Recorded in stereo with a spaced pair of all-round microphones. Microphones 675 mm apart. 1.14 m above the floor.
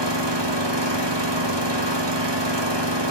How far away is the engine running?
About 1.8 m.